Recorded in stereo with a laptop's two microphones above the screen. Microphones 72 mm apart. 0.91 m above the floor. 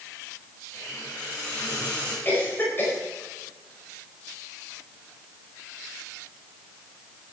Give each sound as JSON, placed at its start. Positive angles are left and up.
{"t": 0.7, "sound": "a hiss", "side_deg": 30, "distance_m": 6.0}
{"t": 2.2, "sound": "a cough", "side_deg": 30, "distance_m": 4.0}